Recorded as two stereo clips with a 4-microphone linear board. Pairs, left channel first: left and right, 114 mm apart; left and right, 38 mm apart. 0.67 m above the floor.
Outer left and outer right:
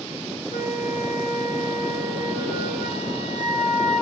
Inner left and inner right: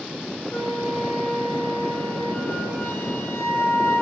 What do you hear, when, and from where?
0.5 s a flute: 85° left, 5 m